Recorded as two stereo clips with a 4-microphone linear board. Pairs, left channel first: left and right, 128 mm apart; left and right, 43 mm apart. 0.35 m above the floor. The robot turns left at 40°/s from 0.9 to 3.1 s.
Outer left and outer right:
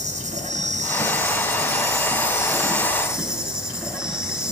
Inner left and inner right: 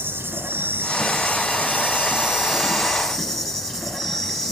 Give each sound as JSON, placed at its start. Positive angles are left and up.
{"t": 0.0, "sound": "an insect", "azimuth_deg": -85, "distance_m": 8.0}